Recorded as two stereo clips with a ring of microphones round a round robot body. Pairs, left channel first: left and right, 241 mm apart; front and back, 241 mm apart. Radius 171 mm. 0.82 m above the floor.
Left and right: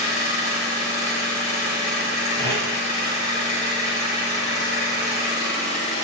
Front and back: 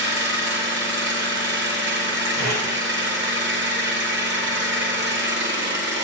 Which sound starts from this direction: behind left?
An engine running, at 0.0 s.